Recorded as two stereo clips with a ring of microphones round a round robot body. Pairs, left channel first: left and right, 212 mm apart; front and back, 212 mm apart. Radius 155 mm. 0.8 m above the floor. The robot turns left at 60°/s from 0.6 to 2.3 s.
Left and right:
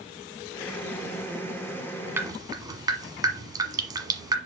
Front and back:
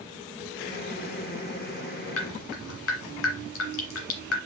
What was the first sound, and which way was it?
Dripping, 10° right.